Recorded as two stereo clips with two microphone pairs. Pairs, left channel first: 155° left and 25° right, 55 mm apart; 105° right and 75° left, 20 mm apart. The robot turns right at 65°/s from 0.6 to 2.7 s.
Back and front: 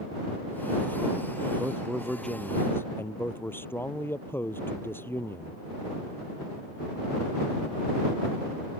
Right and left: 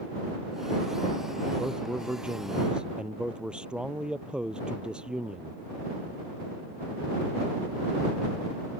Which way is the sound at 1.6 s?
35° left.